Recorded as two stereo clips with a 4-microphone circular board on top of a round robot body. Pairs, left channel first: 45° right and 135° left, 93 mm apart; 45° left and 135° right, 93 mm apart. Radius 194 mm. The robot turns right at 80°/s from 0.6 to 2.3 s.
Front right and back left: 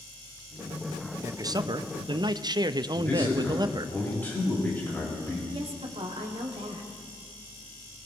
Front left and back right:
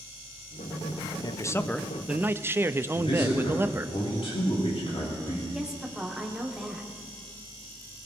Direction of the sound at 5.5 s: 140° left.